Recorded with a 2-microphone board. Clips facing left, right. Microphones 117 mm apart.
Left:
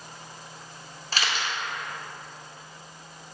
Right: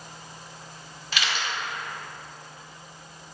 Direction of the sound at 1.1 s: 40° left (ahead or behind).